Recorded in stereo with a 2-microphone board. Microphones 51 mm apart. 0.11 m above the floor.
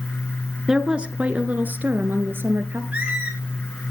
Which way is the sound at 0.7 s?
10° right (ahead or behind).